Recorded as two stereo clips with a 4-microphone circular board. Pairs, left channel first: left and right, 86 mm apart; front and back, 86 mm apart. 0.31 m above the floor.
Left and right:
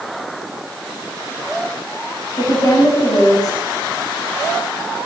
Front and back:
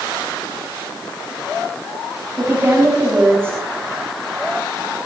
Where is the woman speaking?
125° left, 3.5 m.